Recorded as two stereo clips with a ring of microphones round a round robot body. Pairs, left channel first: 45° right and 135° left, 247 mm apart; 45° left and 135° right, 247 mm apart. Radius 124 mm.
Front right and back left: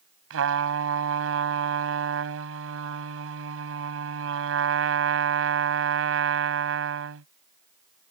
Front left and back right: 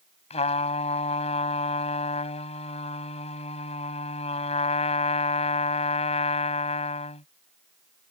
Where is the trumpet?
110° left.